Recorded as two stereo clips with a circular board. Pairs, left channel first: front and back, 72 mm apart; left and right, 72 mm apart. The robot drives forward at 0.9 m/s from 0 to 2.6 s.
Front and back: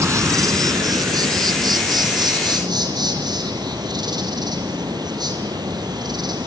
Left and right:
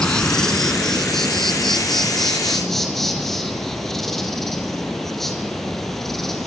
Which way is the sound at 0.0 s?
165° left.